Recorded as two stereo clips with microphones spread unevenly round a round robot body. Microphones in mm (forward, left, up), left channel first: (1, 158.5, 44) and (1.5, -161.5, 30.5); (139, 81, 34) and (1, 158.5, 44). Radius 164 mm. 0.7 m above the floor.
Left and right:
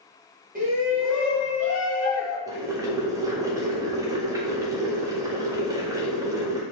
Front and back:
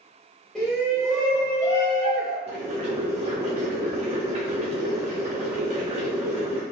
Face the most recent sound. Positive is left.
turn(degrees=-165)